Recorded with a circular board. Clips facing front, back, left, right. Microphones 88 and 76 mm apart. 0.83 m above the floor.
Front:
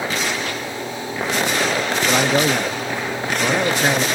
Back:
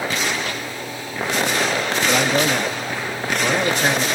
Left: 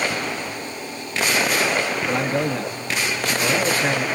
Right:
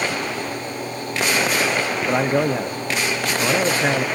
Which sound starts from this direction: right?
A man speaking, at 2.1 s.